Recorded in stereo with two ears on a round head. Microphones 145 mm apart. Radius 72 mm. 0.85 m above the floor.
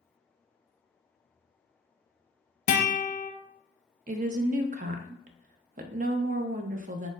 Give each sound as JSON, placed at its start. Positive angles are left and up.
{"t": 2.7, "sound": "a guitar", "side_deg": 45, "distance_m": 0.7}
{"t": 4.1, "sound": "a woman speaking", "side_deg": -50, "distance_m": 0.5}